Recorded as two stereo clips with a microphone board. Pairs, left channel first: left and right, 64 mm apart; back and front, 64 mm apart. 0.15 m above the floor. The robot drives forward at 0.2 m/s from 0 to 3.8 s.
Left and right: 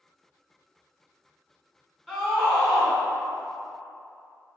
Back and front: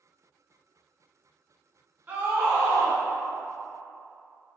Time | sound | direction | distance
2.1 | a scream | 10° left | 1.2 m